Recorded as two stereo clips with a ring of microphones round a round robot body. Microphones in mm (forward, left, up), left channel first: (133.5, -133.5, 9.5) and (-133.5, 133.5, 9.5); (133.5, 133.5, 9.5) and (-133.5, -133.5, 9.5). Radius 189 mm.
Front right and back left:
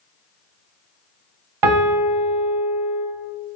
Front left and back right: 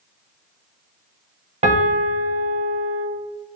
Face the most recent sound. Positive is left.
turn(degrees=155)